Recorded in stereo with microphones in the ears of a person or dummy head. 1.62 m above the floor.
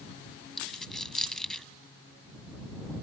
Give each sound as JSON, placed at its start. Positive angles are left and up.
{"t": 0.6, "sound": "a dropped coin", "side_deg": 0}